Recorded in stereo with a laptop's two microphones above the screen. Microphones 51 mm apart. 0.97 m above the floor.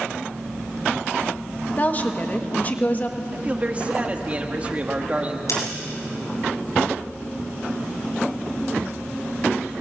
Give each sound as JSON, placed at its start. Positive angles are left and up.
{"t": 1.8, "sound": "a woman speaking", "side_deg": 30, "distance_m": 1.4}
{"t": 3.3, "sound": "a man speaking", "side_deg": -30, "distance_m": 1.6}
{"t": 5.5, "sound": "scissors", "side_deg": 80, "distance_m": 7.0}